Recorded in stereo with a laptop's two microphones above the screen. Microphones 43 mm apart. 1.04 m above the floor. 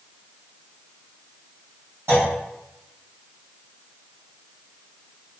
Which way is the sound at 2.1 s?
75° right (ahead or behind).